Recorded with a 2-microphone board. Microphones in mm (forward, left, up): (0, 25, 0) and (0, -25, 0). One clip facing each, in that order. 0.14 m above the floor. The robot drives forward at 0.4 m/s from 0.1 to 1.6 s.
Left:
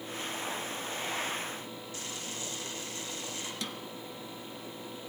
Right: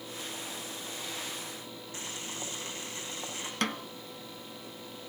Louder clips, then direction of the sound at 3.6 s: Right 7 dB; 55° right (ahead or behind).